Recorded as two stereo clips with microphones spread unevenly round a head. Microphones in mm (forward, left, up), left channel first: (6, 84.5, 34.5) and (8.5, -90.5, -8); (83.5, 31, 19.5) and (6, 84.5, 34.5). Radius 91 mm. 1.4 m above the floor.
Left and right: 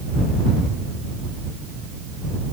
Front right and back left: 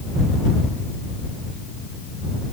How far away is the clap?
I don't hear a clap.